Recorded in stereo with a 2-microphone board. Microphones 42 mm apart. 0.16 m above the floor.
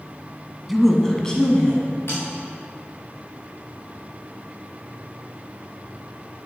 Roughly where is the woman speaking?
Centre.